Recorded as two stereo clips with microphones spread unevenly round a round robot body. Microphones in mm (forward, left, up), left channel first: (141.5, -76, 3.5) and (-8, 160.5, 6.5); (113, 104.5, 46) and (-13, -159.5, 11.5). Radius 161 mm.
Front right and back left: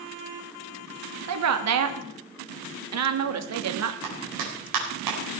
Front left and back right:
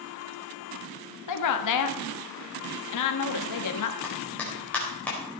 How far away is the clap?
About 4 m.